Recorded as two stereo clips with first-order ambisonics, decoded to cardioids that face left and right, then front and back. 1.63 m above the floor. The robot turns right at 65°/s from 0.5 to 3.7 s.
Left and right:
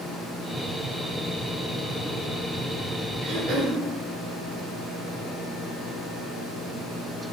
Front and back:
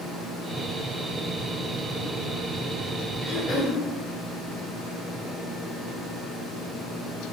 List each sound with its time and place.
3.2 s throat clearing: 100° right, 2.5 m; by 3.8 s 70° right, 2.5 m